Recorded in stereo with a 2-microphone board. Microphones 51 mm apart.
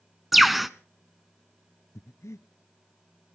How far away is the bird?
About 0.6 m.